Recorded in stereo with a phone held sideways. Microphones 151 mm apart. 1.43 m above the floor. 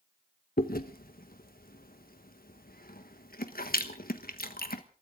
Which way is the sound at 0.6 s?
80° left.